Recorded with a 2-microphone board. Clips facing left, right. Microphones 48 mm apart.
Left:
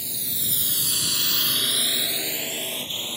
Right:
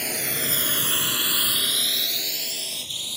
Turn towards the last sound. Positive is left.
turn(degrees=35)  # may be behind; listen again after turning